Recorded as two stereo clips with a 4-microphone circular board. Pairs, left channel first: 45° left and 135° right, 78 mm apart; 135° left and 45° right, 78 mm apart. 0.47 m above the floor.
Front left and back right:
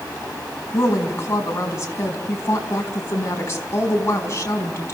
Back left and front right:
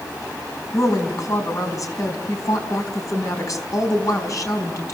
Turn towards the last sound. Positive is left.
turn(degrees=95)